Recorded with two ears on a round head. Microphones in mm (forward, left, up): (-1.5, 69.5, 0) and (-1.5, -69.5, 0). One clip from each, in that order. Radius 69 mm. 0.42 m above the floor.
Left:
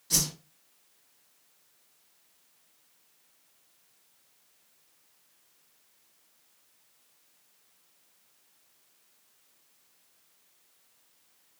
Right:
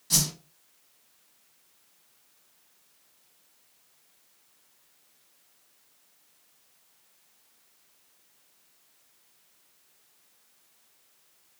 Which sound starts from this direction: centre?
A whoosh, at 0.1 s.